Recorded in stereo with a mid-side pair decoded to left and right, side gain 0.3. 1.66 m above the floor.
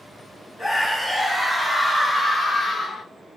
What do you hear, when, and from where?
0.6 s a scream: 25° left, 1.7 m; by 3.0 s 80° left, 1.0 m